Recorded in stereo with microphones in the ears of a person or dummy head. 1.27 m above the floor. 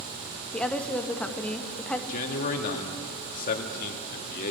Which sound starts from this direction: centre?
A woman speaking, at 0.5 s.